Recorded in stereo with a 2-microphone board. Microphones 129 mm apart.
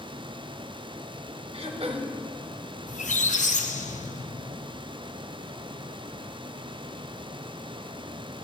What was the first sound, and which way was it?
Throat clearing, 50° right (ahead or behind).